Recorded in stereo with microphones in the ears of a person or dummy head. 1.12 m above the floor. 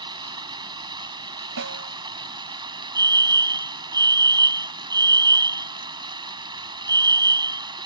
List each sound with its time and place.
0.0 s running water: 25° right (ahead or behind)
1.6 s a snare drum: 70° right (ahead or behind)
3.0 s a fire alarm: 20° right (ahead or behind)